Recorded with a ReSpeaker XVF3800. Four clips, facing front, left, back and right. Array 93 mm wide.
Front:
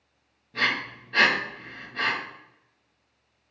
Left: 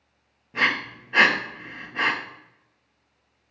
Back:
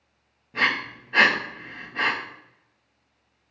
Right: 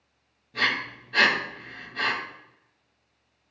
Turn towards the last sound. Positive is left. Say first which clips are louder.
# left 3 dB, back 3 dB
turn(degrees=125)